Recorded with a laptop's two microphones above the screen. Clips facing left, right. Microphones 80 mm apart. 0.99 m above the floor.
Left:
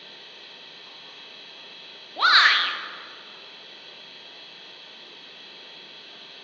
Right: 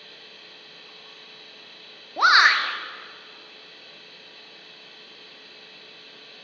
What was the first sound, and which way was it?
A machine running, 65° left (ahead or behind).